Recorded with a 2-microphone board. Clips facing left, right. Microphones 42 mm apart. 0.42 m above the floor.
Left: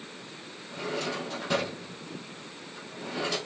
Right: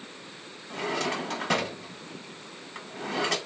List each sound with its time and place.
0.7 s a drawer: 85° right, 0.8 m